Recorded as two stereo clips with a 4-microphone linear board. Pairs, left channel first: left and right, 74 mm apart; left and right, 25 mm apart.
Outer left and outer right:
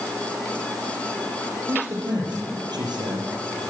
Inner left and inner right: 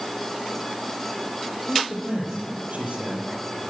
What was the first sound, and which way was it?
A man speaking, 70° right (ahead or behind).